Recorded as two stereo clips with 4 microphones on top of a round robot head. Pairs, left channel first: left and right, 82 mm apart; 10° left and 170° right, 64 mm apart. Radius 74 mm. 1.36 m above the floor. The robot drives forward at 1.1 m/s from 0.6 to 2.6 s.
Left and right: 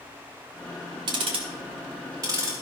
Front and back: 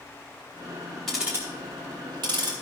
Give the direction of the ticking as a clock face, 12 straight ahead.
3 o'clock.